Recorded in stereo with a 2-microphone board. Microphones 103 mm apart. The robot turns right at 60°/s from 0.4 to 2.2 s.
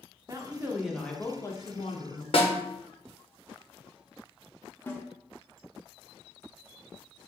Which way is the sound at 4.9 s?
20° left (ahead or behind).